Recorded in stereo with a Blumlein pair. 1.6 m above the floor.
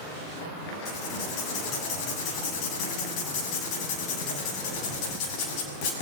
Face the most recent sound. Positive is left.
turn(degrees=45)